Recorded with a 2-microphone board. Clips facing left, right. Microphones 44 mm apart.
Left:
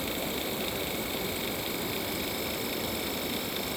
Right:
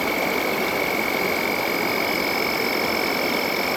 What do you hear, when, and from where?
0.0 s an insect: 85° right